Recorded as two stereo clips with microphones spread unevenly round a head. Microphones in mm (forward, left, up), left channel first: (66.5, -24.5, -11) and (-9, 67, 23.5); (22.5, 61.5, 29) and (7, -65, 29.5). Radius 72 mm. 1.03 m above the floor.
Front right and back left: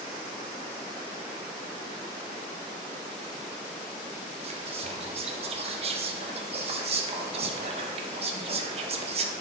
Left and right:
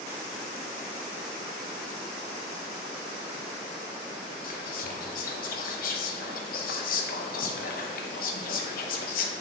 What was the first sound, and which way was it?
Whispering, 85° left.